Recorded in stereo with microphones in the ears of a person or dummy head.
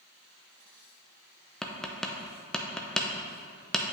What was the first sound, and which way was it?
Tapping, centre (ahead or behind).